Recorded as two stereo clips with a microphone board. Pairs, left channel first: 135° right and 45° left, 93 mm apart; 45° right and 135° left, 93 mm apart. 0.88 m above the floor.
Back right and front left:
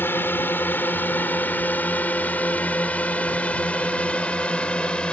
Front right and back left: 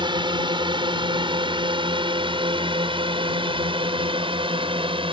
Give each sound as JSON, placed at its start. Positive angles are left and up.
{"t": 0.0, "sound": "a drone", "azimuth_deg": 160}